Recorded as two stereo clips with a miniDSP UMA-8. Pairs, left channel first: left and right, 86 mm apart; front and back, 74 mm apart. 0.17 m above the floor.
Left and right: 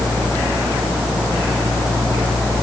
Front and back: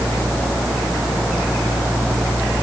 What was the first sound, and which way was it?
Only background noise.